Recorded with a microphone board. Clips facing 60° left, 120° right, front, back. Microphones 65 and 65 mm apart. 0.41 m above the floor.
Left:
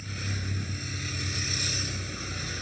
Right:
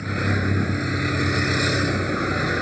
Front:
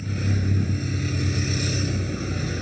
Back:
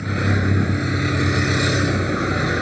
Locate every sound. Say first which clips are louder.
0.0 s a vehicle: right 14 dB, back 7 dB; 155° right